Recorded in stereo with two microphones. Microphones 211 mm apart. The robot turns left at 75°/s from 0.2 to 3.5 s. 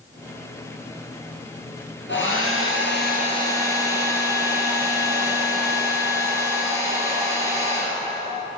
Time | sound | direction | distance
2.1 | a hair dryer | 120° left | 3 m